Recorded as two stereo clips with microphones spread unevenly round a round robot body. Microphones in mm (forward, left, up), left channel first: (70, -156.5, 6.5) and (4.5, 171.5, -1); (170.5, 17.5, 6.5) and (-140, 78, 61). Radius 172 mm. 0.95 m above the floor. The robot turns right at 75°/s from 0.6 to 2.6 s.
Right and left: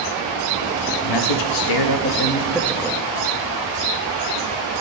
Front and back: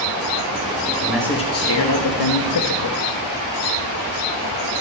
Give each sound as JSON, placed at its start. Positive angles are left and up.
{"t": 1.0, "sound": "a man speaking", "azimuth_deg": -110, "distance_m": 1.2}